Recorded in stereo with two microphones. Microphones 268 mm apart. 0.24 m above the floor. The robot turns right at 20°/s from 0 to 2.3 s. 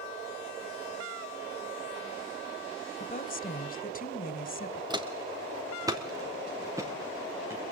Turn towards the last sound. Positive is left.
turn(degrees=-10)  # may be behind; listen again after turning